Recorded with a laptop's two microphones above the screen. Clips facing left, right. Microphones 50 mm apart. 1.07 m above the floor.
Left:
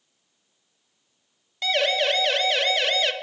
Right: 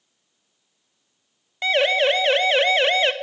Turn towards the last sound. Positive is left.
turn(degrees=-25)  # may be behind; listen again after turning